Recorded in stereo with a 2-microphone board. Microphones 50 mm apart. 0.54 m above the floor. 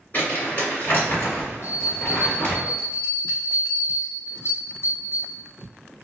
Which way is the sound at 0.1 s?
40° left (ahead or behind).